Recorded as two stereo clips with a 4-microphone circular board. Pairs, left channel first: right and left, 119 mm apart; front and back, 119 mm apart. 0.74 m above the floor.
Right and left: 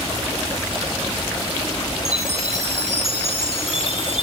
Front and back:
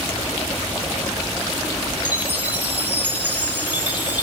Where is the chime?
105° left, 5.5 m.